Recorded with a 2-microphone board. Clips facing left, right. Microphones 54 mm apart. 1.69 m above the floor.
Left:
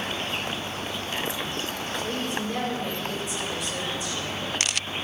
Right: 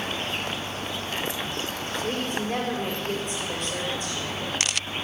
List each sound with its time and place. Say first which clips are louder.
2.0 s a woman speaking: right 2 dB; 50° right (ahead or behind), 5 m